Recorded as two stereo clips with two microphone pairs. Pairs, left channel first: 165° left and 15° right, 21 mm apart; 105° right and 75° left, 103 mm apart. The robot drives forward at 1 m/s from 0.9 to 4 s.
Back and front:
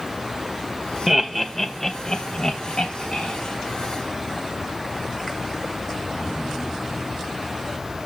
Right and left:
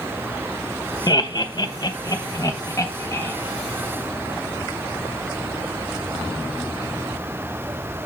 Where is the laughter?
90° right, 1.1 m; by 3.3 s 160° right, 2.5 m.